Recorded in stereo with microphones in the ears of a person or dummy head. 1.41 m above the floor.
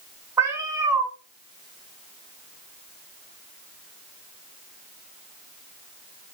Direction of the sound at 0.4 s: 15° right (ahead or behind).